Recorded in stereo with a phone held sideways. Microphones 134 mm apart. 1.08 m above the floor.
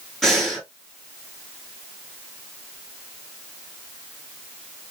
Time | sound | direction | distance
0.2 | breathing | centre (ahead or behind) | 2.5 m